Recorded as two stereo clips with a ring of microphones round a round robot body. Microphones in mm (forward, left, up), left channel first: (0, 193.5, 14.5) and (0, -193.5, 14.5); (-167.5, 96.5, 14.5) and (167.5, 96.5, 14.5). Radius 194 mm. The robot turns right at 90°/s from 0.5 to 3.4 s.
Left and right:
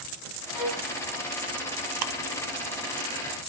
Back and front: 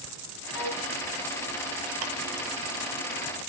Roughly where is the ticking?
Ahead right.